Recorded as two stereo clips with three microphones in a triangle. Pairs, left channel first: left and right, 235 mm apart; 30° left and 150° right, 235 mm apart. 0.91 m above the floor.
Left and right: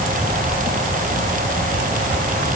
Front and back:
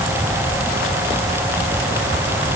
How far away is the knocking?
I don't hear knocking.